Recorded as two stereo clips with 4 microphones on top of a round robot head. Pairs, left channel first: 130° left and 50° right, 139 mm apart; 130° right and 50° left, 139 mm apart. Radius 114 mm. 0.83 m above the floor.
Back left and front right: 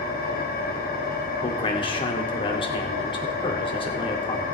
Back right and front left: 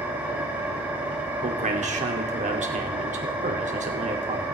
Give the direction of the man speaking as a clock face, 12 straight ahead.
9 o'clock.